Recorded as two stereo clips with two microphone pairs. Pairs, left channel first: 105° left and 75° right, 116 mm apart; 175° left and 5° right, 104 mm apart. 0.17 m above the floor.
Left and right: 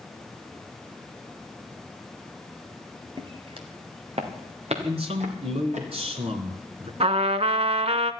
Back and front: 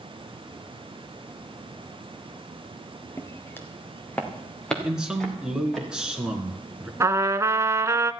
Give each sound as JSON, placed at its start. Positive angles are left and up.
{"t": 3.2, "sound": "footsteps", "azimuth_deg": -125, "distance_m": 2.0}
{"t": 4.8, "sound": "a man speaking", "azimuth_deg": -85, "distance_m": 2.0}
{"t": 7.0, "sound": "a trumpet", "azimuth_deg": -60, "distance_m": 0.6}